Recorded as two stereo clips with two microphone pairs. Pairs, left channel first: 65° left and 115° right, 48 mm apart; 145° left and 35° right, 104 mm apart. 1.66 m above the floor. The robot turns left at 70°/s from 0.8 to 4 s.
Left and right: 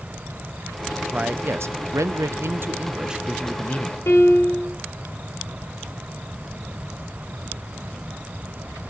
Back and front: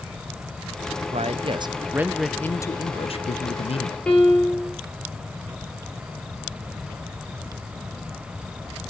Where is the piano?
65° left, 3 m.